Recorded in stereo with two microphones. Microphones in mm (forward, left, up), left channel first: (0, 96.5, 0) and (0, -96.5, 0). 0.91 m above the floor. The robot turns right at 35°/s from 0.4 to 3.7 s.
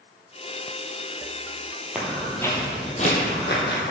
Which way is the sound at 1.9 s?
10° right (ahead or behind).